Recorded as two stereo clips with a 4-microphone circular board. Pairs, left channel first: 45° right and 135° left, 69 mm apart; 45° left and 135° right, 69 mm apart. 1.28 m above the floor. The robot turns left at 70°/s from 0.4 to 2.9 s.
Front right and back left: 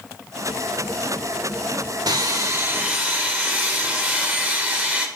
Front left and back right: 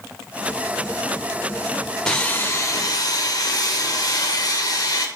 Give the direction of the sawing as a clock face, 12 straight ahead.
8 o'clock.